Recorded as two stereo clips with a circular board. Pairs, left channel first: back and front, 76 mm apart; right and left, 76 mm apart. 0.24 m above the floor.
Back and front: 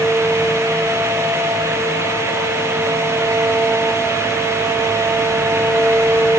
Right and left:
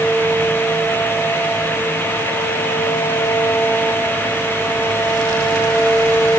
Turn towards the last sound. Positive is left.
No sound to turn to.